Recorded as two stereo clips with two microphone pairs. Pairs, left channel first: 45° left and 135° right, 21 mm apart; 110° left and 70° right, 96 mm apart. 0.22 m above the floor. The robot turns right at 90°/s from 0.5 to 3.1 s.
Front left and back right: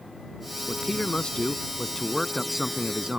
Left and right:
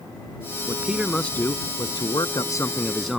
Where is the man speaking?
15° right; by 3.2 s 160° right.